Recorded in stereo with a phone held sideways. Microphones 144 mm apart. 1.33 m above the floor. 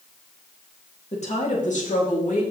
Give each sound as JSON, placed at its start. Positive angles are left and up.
{"t": 1.1, "sound": "a woman speaking", "side_deg": 50, "distance_m": 3.0}